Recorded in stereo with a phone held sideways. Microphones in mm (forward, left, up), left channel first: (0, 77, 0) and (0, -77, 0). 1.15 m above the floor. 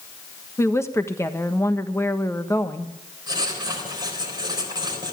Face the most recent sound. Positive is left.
turn(degrees=-25)  # may be behind; listen again after turning